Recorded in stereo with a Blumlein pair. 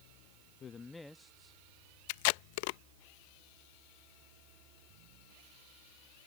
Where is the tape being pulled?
45° left.